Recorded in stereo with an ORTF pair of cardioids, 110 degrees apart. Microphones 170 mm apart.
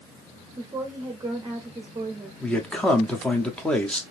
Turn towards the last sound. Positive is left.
turn(degrees=5)